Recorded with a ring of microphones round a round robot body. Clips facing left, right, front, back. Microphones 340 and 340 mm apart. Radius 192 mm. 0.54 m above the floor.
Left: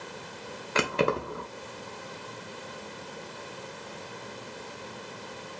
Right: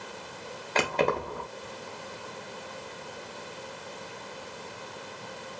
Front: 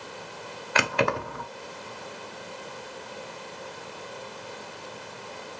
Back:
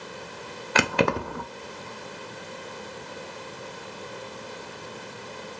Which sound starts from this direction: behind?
Keys jangling, at 0.8 s.